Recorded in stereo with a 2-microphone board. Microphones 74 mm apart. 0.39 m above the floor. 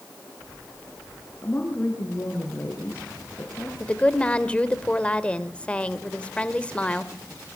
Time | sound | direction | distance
1.4 | a woman speaking | 30° left (ahead or behind) | 5.5 m
3.8 | a woman speaking | 15° left (ahead or behind) | 1.7 m